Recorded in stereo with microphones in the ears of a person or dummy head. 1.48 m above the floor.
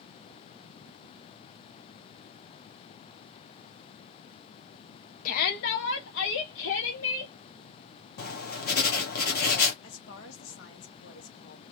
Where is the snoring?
I don't hear snoring.